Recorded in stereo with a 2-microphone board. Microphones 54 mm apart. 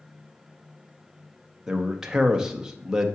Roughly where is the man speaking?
Centre.